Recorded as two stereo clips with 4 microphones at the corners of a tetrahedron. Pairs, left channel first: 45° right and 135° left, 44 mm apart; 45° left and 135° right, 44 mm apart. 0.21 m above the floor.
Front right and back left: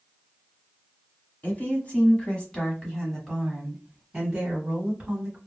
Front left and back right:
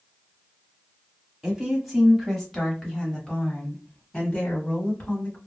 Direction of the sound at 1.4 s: 60° right.